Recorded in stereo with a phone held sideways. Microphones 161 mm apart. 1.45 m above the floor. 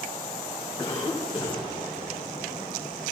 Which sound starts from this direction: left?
A cough, at 0.8 s.